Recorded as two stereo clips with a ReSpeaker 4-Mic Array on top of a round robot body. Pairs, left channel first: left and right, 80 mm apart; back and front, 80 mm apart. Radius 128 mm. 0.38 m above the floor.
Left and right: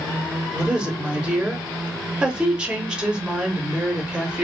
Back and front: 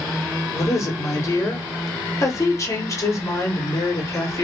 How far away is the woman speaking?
About 1.1 m.